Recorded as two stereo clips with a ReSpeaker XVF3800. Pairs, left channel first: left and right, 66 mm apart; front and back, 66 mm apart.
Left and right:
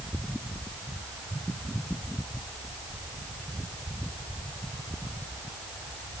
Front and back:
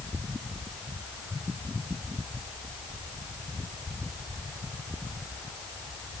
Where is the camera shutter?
No camera shutter in this recording.